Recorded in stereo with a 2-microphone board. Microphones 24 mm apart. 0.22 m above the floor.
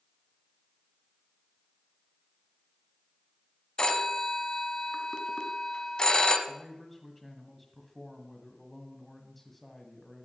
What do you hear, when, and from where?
3.8 s a phone ringing: 35° left (ahead or behind), 1.0 m
6.5 s a man speaking: 10° left (ahead or behind), 1.3 m